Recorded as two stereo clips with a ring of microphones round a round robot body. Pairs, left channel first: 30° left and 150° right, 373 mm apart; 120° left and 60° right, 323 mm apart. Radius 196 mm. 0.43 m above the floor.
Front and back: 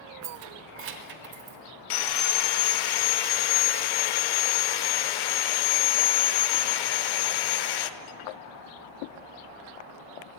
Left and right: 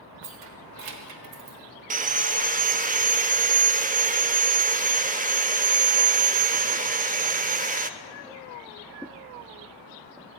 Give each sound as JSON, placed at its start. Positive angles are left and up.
{"t": 0.2, "sound": "keys jangling", "azimuth_deg": -110, "distance_m": 0.9}
{"t": 1.9, "sound": "sawing", "azimuth_deg": 10, "distance_m": 0.6}